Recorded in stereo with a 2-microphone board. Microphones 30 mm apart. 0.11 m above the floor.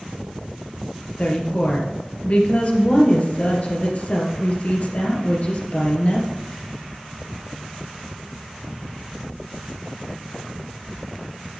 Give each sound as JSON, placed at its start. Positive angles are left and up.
{"t": 1.2, "sound": "a woman speaking", "side_deg": 50, "distance_m": 2.5}